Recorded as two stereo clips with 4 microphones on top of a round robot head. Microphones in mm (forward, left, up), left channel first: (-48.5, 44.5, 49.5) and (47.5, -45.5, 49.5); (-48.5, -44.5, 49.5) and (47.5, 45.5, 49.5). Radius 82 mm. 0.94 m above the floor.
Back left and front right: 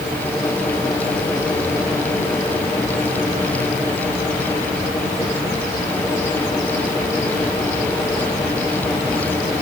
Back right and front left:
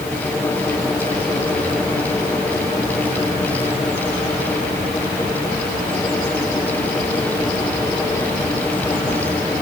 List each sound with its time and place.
Only background noise.